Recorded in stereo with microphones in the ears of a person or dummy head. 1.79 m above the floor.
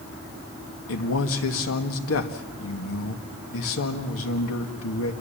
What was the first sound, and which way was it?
A man speaking, 70° left (ahead or behind).